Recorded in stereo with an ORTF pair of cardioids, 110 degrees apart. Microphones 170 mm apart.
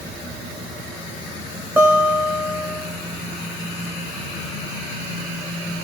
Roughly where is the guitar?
Ahead.